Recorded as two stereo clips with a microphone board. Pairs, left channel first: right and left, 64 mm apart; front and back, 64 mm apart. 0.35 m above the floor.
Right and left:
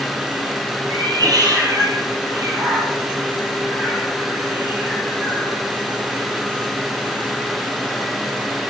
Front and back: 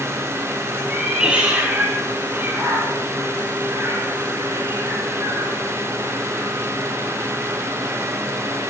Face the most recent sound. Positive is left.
turn(degrees=140)